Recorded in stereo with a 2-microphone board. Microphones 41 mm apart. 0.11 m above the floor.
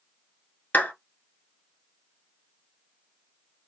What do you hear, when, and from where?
0.7 s a clap: 40° left (ahead or behind), 1.2 m